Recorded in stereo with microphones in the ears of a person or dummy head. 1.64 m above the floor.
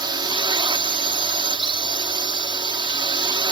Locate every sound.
0.0 s a drone: 25° right (ahead or behind)